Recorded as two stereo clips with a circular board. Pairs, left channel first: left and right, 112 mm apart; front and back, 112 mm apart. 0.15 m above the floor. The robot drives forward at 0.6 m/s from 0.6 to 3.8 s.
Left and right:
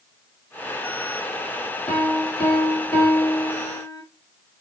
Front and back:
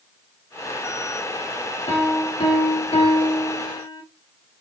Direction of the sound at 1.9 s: 15° left.